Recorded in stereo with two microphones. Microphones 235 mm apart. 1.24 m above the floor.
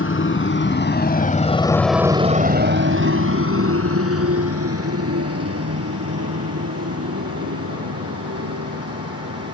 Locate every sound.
0.0 s a motorcycle: 60° left (ahead or behind); by 9.5 s 85° right